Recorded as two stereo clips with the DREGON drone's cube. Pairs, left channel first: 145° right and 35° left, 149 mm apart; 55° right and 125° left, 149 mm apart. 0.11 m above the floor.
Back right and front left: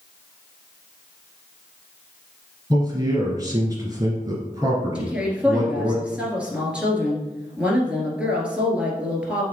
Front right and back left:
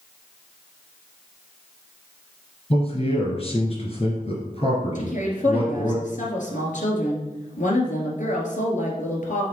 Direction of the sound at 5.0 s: 45° right.